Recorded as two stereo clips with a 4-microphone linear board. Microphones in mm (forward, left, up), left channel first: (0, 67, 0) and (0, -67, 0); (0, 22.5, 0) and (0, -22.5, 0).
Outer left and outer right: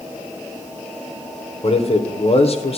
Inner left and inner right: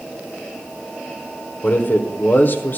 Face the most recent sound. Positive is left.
turn(degrees=50)  # may be behind; listen again after turning